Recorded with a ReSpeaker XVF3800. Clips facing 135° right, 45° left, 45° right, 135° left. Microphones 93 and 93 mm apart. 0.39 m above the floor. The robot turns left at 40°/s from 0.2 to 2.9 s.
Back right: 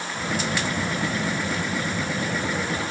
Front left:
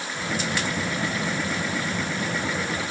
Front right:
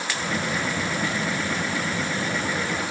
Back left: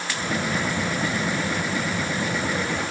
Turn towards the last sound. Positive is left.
No sound to turn to.